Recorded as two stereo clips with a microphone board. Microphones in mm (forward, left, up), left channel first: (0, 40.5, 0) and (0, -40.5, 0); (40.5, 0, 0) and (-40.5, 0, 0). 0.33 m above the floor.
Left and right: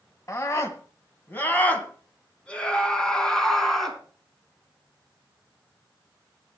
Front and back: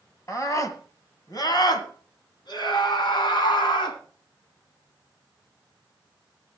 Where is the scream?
45° left, 2 m; by 4.0 s straight ahead, 3.5 m.